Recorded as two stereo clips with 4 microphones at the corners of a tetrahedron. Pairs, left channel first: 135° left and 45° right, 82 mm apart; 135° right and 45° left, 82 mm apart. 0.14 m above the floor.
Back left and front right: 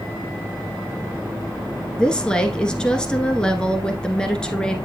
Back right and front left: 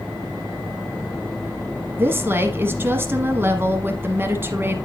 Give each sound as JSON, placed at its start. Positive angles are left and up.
{"t": 2.0, "sound": "a woman speaking", "azimuth_deg": 65, "distance_m": 1.4}